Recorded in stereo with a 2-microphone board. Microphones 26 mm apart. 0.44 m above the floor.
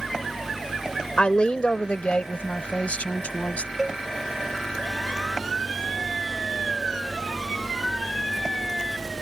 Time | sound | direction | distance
1.2 | a woman speaking | 45° left (ahead or behind) | ?
3.8 | a cowbell | 10° right (ahead or behind) | ?